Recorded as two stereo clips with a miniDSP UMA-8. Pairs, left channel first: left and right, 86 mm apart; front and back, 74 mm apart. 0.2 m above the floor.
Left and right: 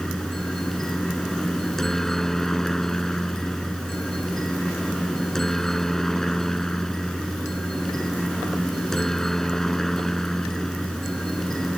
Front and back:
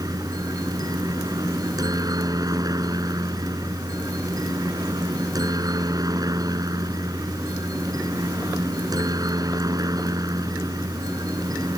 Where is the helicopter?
175° left.